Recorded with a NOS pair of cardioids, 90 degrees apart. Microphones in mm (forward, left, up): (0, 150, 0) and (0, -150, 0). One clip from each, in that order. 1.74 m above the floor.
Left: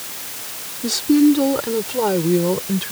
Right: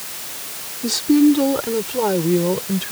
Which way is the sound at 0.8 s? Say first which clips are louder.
Even; straight ahead.